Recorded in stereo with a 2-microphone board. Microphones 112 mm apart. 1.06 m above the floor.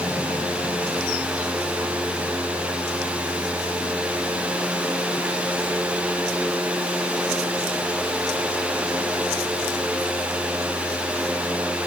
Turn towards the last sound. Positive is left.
No sound to turn to.